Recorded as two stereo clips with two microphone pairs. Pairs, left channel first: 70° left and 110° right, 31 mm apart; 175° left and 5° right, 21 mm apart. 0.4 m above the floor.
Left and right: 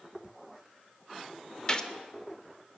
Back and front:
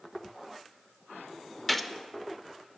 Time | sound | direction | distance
1.7 | a gunshot | 90° left | 0.6 m